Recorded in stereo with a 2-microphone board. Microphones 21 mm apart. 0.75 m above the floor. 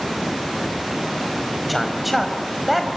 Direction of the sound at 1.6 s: Centre (ahead or behind).